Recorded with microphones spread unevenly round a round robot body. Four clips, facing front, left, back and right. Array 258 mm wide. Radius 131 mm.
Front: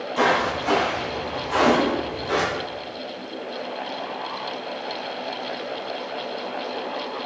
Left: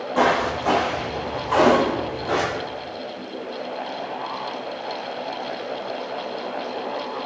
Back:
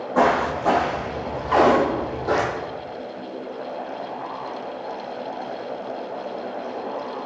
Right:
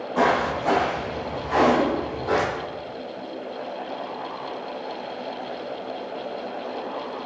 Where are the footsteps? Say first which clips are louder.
Left 1 dB, back 2 dB; 150° left, 3.5 m; by 2.5 s 175° left, 2.5 m.